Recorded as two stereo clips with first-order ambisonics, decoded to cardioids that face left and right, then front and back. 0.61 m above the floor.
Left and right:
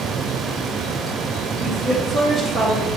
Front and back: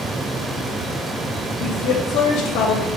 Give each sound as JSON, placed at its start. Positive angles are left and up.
{"t": 1.6, "sound": "a woman speaking", "azimuth_deg": 10, "distance_m": 2.5}